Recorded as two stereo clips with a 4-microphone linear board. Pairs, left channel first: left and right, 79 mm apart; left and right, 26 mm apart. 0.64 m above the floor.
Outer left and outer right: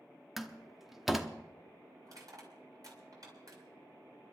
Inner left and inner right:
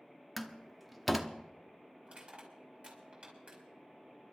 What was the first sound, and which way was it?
A door slam, 5° right (ahead or behind).